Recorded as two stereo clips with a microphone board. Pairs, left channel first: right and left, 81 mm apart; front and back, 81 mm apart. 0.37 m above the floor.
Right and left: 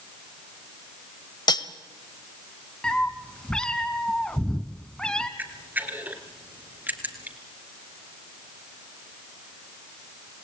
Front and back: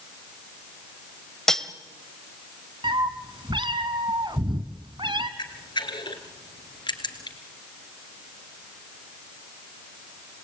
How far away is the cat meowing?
About 1.4 m.